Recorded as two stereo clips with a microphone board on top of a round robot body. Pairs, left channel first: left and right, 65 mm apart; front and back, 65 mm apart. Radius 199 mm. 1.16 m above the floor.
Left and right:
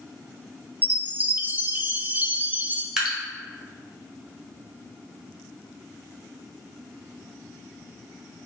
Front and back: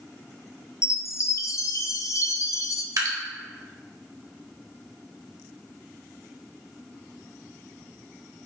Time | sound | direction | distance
0.8 | a chime | 30° right | 0.6 m
3.0 | dripping | 175° right | 1.4 m